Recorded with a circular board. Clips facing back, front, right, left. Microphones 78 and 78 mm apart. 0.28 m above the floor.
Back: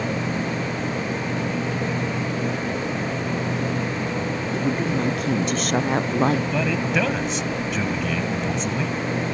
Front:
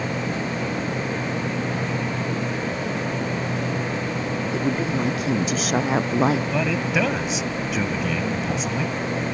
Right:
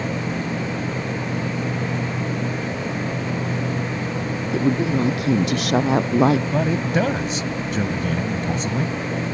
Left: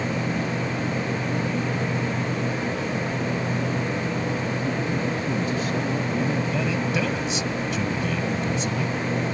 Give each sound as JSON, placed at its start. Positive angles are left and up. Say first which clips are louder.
{"t": 4.5, "sound": "a woman speaking", "louder": "back 1 dB, right 6 dB", "azimuth_deg": -90}
{"t": 6.5, "sound": "a man speaking", "louder": "even, right 4 dB", "azimuth_deg": -85}